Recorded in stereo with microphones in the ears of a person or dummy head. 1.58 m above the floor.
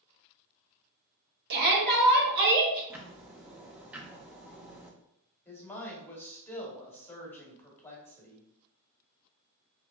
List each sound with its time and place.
1.5 s a shout: 55° right (ahead or behind), 1.3 m; by 2.8 s 50° right (ahead or behind), 2.5 m
2.9 s ticking: 10° right (ahead or behind), 0.5 m
5.5 s a woman speaking: 10° left (ahead or behind), 1.4 m